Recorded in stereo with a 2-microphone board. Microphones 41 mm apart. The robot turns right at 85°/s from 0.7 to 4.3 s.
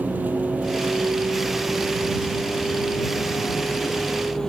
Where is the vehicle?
135° right; by 4.5 s 170° left.